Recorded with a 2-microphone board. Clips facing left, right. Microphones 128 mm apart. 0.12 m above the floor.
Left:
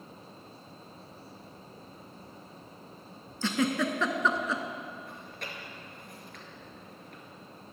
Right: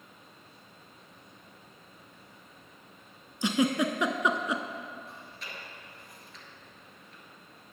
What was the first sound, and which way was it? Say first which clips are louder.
A giggle: right 2 dB; 15° right (ahead or behind).